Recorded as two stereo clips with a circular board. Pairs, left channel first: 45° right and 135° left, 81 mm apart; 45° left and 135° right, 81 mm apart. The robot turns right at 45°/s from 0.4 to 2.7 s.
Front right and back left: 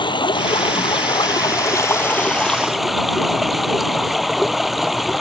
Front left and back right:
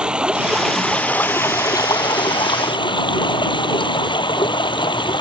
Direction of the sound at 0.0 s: 55° right.